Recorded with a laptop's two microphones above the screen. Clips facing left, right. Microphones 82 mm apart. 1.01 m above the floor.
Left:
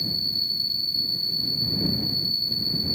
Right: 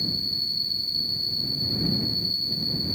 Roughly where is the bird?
No bird in this recording.